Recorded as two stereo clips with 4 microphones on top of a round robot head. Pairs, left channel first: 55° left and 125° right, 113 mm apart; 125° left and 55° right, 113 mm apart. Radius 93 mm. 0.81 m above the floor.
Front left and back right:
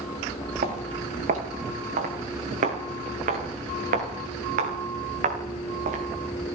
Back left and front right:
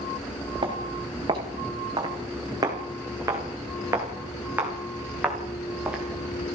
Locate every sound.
0.6 s footsteps: 105° right, 6.5 m; by 6.0 s 140° right, 6 m